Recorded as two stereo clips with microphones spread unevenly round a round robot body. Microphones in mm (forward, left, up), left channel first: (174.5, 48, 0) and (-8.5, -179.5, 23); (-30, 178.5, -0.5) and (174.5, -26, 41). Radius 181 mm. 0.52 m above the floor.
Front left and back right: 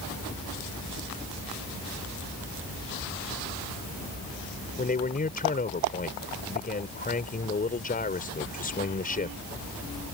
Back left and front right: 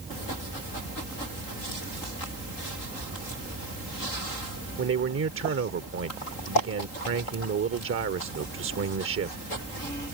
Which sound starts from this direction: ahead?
A man speaking, at 4.8 s.